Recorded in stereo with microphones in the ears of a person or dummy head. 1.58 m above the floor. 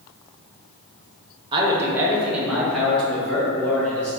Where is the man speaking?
25° right (ahead or behind), 0.9 m; by 4.1 s 15° left (ahead or behind), 2.5 m.